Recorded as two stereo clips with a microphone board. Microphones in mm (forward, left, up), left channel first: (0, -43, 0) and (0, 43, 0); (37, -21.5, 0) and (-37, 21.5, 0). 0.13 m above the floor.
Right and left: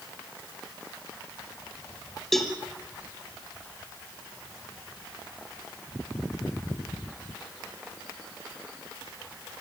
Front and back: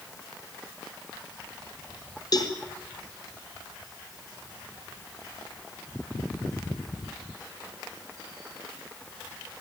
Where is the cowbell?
5° right, 2.5 m.